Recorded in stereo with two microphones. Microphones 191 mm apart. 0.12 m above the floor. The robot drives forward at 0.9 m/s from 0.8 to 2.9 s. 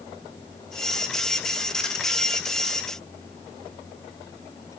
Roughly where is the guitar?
I don't hear a guitar.